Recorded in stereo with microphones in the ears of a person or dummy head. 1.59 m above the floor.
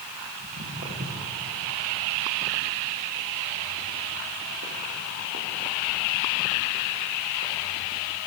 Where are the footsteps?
40° right (ahead or behind), 5.5 m; by 7.5 s 55° right (ahead or behind), 3.5 m.